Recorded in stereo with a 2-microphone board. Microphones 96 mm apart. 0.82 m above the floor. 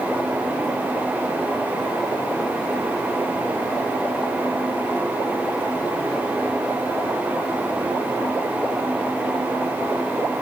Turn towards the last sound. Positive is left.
No sound to turn to.